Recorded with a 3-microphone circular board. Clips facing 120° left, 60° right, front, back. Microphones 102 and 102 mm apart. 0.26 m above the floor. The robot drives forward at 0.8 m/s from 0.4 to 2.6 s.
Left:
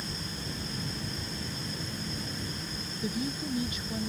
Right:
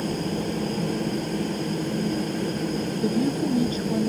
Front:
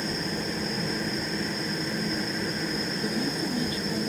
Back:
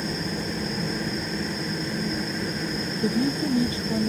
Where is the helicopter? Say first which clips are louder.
Right 13 dB, back 1 dB; 90° right.